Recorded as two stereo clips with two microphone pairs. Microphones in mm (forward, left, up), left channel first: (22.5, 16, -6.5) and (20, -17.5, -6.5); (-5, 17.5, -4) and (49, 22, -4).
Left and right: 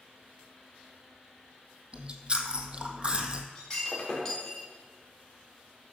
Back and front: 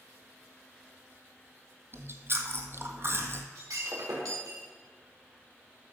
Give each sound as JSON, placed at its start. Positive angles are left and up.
{"t": 1.9, "sound": "chewing", "azimuth_deg": -35, "distance_m": 1.2}
{"t": 3.5, "sound": "breaking glass", "azimuth_deg": 5, "distance_m": 4.5}